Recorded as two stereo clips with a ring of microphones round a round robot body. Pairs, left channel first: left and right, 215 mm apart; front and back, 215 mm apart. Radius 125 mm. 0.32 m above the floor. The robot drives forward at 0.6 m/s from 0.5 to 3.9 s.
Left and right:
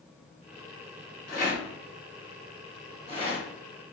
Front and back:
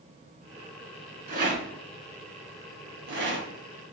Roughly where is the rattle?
Behind left.